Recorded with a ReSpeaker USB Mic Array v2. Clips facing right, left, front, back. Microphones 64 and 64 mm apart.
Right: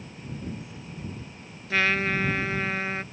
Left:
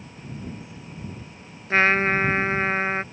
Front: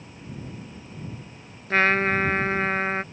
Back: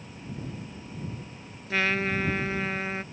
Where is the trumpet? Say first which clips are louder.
Left 5 dB, front 6 dB; 40° left.